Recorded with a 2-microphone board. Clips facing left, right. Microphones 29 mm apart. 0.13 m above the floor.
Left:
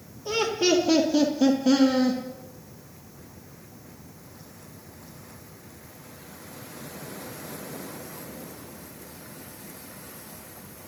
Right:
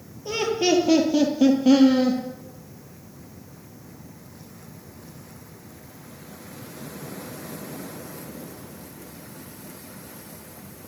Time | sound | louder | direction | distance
0.2 | laughter | right 1 dB | centre (ahead or behind) | 2.5 m